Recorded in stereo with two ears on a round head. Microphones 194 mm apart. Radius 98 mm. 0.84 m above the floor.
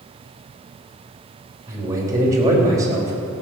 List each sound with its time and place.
1.7 s a man speaking: 15° right (ahead or behind), 3.5 m